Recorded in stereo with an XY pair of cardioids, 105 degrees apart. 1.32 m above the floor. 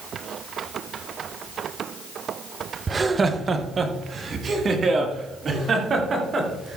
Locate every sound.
2.9 s laughter: 25° right, 0.7 m; by 6.8 s 45° right, 3 m